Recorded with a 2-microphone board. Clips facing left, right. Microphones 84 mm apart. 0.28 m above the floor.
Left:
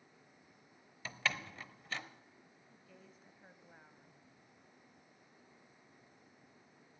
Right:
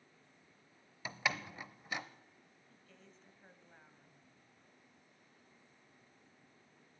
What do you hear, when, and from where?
1.1 s a door slam: 15° right (ahead or behind), 0.7 m
2.7 s a woman speaking: 10° left (ahead or behind), 1.2 m